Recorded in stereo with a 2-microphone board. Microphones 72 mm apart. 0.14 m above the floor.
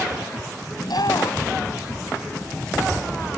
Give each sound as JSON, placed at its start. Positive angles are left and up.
{"t": 0.8, "sound": "a shout", "side_deg": 65}